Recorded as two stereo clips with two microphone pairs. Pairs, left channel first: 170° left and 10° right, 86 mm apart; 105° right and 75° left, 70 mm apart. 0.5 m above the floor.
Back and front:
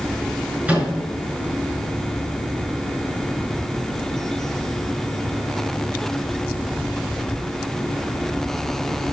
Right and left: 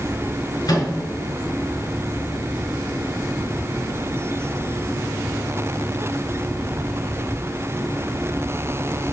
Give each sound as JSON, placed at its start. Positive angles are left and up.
{"t": 0.7, "sound": "a microwave", "azimuth_deg": -85, "distance_m": 4.5}